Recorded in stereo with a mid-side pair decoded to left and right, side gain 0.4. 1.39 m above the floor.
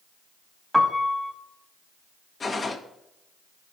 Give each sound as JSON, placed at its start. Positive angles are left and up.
{"t": 0.7, "sound": "a piano", "azimuth_deg": 0, "distance_m": 2.0}
{"t": 2.4, "sound": "a gunshot", "azimuth_deg": 35, "distance_m": 1.2}